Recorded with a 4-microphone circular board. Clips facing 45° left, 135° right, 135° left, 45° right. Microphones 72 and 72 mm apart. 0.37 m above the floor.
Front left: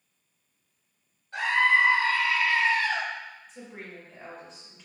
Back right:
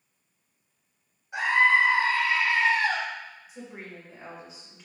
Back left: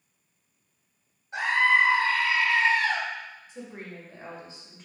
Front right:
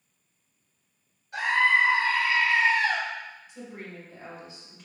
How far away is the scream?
About 1.1 m.